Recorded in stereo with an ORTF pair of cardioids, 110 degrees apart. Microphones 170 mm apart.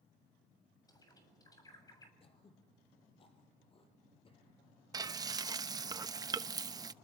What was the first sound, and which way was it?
A bird, 20° left.